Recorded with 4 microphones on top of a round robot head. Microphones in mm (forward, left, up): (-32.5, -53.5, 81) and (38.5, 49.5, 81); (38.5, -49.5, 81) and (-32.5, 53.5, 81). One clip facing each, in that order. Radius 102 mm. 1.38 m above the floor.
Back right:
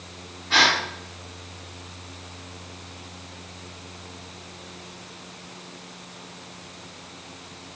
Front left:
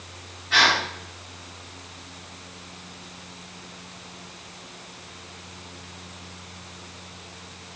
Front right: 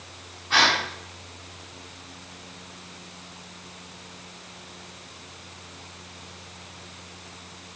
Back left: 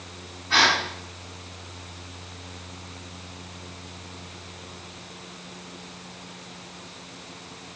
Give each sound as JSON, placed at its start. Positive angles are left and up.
{"t": 0.5, "sound": "a gasp", "azimuth_deg": -125, "distance_m": 5.0}